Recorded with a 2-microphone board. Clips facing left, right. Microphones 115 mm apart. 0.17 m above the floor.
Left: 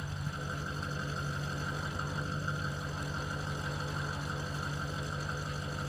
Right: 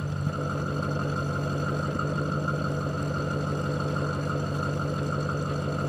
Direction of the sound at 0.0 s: 60° right (ahead or behind).